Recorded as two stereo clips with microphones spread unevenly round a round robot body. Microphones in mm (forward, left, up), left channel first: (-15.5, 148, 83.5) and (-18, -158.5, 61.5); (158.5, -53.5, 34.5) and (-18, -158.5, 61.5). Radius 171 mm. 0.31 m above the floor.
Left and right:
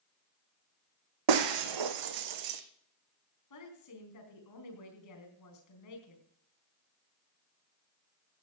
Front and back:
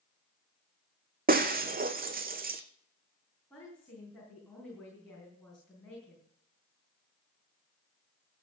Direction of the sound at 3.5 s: 115° left.